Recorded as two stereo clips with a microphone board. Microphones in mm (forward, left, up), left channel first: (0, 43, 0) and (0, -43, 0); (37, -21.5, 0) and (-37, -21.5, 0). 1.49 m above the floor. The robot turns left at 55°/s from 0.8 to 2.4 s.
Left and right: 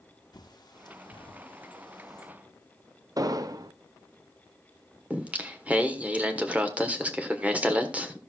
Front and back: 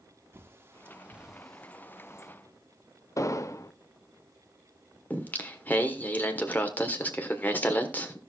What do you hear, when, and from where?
0.3 s a bird: 125° left, 1.3 m; by 2.3 s 45° left, 1.3 m
3.2 s an explosion: 45° right, 0.7 m
5.1 s singing: 35° right, 1.2 m